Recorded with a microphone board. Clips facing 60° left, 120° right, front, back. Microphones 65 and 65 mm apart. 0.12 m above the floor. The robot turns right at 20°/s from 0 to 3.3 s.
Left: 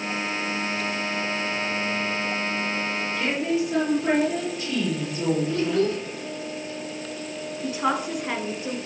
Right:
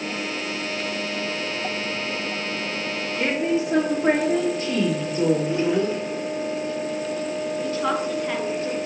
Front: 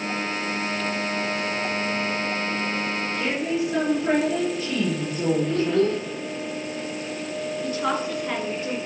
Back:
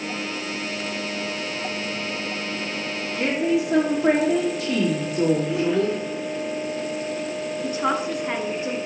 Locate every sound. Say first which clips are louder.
3.2 s a woman speaking: right 3 dB, back 5 dB; 175° right, 6 m
5.5 s a child speaking: right 1 dB, front 1 dB; 110° right, 0.9 m
7.6 s a woman speaking: left 1 dB, back 2 dB; 125° left, 1.6 m